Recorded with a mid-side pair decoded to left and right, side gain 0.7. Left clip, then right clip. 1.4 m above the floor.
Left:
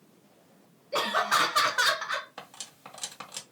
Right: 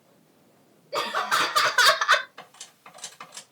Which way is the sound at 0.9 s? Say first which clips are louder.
Right 1 dB; 10° left.